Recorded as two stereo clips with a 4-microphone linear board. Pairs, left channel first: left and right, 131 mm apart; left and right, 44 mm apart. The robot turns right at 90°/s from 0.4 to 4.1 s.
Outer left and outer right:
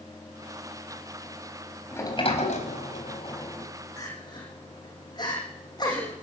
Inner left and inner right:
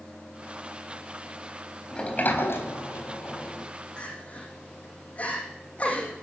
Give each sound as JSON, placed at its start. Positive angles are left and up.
{"t": 1.9, "sound": "a sliding door", "azimuth_deg": 15, "distance_m": 4.0}
{"t": 4.0, "sound": "crying", "side_deg": 20, "distance_m": 9.5}